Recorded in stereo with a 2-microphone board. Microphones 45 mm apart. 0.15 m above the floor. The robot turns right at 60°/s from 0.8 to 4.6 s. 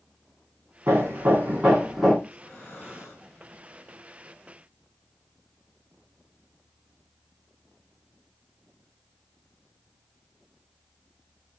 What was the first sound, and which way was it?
Hammering, 75° right.